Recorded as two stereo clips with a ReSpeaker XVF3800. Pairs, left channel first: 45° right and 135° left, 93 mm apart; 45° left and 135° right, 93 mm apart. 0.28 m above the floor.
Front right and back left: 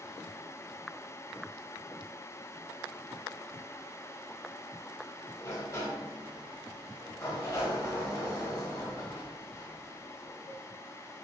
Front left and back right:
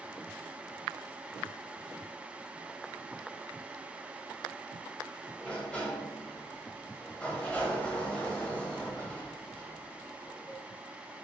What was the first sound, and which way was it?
A sliding door, 25° right.